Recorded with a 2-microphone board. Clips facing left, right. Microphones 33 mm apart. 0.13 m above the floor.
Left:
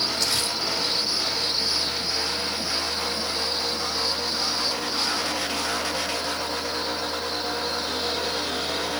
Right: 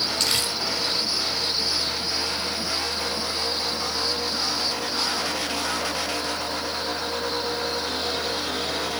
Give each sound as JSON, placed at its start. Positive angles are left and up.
{"t": 0.2, "sound": "crumpling", "side_deg": -65, "distance_m": 5.0}